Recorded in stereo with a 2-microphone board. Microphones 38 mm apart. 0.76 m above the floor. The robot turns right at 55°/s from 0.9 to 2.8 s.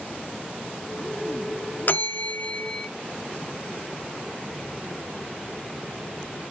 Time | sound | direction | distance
1.9 | a bell | 110° left | 0.5 m